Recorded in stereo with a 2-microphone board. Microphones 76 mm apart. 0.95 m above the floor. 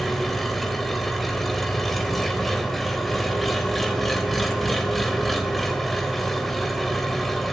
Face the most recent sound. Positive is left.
turn(degrees=0)  # may be behind; listen again after turning